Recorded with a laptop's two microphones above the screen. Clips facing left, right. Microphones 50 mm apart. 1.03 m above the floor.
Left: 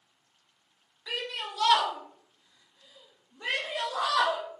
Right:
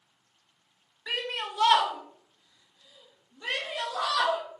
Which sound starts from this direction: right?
A shout, at 1.1 s.